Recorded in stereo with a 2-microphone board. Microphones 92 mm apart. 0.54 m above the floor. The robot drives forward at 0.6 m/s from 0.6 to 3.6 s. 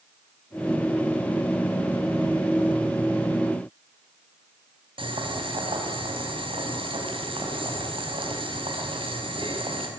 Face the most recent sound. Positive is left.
turn(degrees=-70)  # may be behind; listen again after turning